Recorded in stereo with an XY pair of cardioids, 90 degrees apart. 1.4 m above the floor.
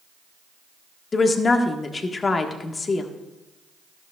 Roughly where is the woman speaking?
Ahead left.